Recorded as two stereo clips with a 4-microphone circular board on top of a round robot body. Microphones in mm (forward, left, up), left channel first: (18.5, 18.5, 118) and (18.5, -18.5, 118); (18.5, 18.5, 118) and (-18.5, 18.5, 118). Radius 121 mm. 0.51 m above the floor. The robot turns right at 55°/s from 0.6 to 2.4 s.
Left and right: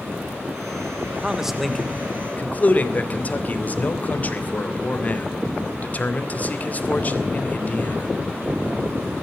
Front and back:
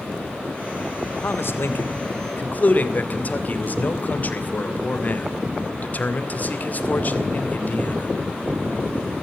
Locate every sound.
1.2 s a man speaking: 20° right, 3 m; by 8.1 s 45° left, 3 m